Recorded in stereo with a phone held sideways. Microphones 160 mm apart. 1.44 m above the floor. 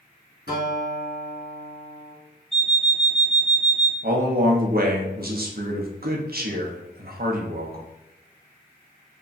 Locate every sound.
0.5 s a guitar: 70° left (ahead or behind), 1.8 m
2.5 s an alarm clock: 5° left (ahead or behind), 1.0 m
4.0 s a man speaking: 70° right (ahead or behind), 0.8 m